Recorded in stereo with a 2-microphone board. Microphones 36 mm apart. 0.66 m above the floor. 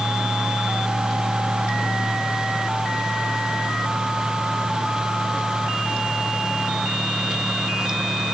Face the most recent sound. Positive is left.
No sound to turn to.